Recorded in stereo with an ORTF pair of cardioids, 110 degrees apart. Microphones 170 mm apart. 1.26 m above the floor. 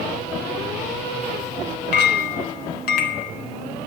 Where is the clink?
70° left, 1.5 m.